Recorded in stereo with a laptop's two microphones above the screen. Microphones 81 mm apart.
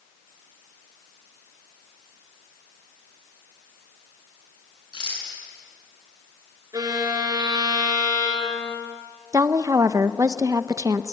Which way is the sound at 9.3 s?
45° right (ahead or behind).